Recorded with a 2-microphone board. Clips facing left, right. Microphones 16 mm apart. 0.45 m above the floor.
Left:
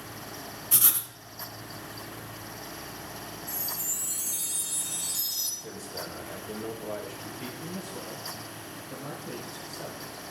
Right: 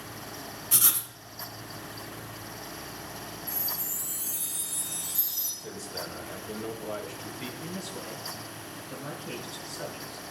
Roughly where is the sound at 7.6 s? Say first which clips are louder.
Even; right.